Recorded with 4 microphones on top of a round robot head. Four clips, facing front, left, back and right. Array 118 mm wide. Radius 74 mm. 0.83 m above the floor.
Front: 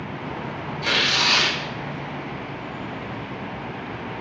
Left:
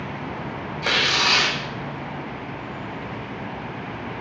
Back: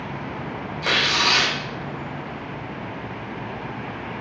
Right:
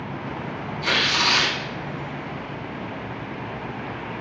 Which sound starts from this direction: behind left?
Tearing paper, at 0.8 s.